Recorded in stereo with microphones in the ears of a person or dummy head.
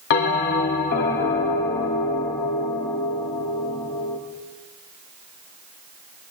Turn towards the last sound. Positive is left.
turn(degrees=50)  # may be behind; listen again after turning